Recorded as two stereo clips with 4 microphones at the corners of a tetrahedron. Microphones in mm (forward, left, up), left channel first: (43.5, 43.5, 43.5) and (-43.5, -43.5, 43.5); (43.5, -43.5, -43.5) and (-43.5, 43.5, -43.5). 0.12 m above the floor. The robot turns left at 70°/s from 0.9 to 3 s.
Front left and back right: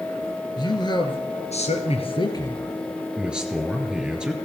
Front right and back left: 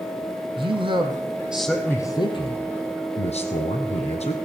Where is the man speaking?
95° left, 3 m; by 4.3 s 55° right, 3 m.